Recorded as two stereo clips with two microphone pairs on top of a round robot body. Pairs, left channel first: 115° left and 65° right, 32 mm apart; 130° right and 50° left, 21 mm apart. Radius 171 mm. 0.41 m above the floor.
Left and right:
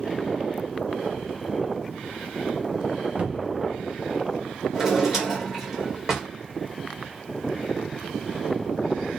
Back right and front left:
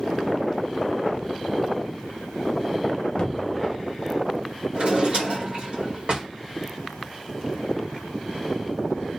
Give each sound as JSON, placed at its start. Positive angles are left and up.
{"t": 3.2, "sound": "a cupboard door", "azimuth_deg": -100, "distance_m": 0.7}
{"t": 4.7, "sound": "a drawer", "azimuth_deg": 10, "distance_m": 1.4}